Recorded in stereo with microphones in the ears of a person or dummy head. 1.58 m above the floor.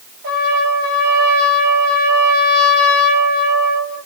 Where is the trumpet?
60° right (ahead or behind), 6 m.